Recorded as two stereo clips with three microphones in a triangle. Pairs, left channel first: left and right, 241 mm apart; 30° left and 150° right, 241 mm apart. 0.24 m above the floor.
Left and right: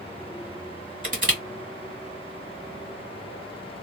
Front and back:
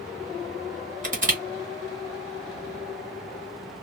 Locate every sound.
1.0 s crushing: 120° right, 1.9 m